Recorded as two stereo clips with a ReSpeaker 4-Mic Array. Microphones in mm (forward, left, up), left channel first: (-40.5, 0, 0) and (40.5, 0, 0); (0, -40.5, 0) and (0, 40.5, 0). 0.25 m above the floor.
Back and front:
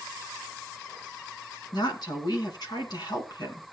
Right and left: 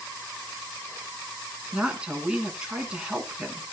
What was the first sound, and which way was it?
A woman speaking, 170° left.